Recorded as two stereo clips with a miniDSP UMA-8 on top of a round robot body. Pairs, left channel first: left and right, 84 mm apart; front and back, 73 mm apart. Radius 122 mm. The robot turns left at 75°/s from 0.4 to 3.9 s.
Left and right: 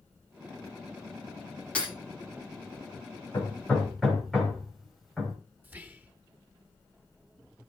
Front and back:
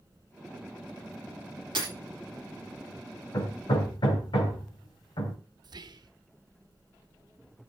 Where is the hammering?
40° left, 4 m; by 5.4 s straight ahead, 4 m.